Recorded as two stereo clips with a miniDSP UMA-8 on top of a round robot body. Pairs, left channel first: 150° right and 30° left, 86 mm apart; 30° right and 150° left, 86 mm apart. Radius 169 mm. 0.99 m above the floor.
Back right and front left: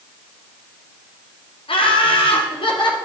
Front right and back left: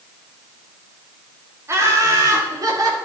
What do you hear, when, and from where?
1.7 s laughter: 150° right, 2 m; by 3.0 s 165° right, 2.5 m